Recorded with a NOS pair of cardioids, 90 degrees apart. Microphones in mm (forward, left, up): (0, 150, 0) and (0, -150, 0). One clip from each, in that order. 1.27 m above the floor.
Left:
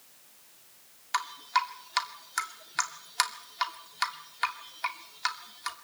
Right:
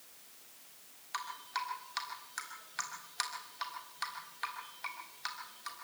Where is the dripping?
60° left, 2.5 m.